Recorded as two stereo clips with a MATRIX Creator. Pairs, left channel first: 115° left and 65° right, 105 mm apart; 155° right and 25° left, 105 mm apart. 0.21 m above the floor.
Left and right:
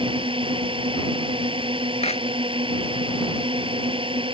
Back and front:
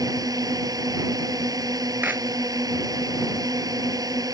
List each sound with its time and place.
0.0 s a drone: 30° right
2.0 s a clap: 95° left